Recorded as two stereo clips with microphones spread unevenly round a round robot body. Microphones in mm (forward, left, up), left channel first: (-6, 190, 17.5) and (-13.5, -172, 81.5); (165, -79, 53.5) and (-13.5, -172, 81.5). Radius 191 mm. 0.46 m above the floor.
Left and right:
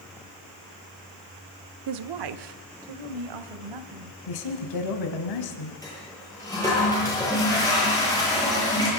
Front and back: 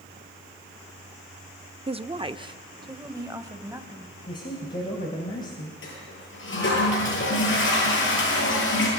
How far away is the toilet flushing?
About 10 m.